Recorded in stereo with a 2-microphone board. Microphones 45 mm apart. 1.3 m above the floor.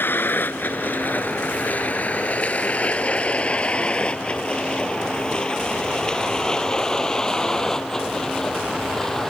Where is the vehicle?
45° left (ahead or behind); by 9.3 s 5° left (ahead or behind).